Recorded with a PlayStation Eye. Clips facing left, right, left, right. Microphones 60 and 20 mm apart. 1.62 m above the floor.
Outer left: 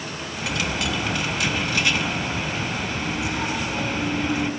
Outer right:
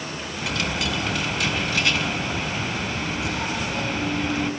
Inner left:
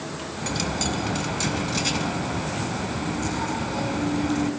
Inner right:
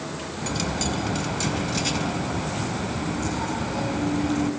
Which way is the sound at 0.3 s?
Centre (ahead or behind).